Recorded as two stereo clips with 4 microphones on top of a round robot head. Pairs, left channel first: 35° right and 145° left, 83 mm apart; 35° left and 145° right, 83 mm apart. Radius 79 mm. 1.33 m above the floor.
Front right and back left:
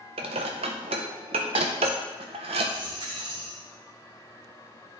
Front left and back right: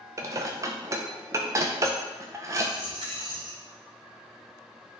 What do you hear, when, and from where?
0.2 s dishes clattering: 160° left, 0.5 m
2.7 s a dropped coin: straight behind, 1.7 m